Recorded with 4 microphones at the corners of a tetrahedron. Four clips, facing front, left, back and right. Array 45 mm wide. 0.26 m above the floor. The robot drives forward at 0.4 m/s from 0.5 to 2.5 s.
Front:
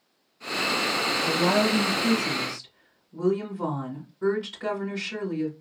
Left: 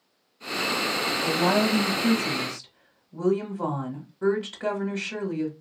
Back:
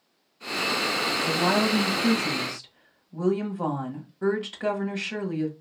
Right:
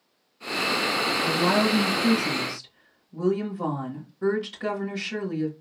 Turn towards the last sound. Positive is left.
turn(degrees=145)